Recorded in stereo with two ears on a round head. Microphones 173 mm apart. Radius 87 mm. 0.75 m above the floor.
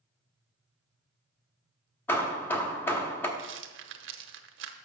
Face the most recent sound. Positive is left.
turn(degrees=-65)  # may be behind; listen again after turning